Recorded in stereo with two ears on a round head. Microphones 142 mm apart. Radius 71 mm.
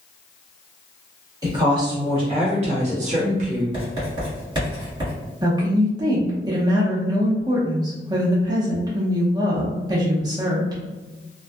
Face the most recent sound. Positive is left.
turn(degrees=-25)  # may be behind; listen again after turning